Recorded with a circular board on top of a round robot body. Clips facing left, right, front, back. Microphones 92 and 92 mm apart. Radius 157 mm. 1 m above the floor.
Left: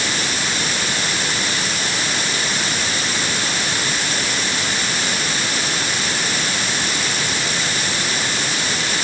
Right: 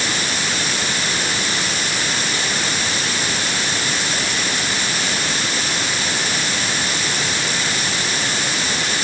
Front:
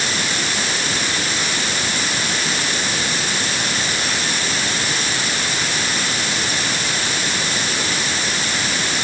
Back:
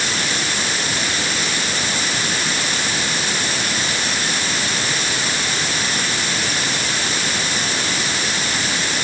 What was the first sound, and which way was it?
Only background noise.